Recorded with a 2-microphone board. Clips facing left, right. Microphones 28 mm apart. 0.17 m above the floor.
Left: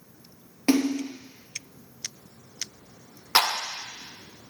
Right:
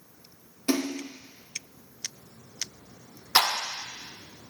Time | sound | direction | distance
0.7 | a splash | 45° left (ahead or behind) | 2 m
3.4 | a clap | 40° left (ahead or behind) | 1.2 m